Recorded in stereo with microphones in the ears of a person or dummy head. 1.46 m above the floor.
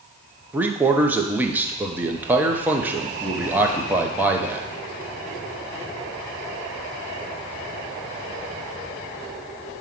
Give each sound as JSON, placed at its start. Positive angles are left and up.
{"t": 0.5, "sound": "a man speaking", "side_deg": -10, "distance_m": 0.8}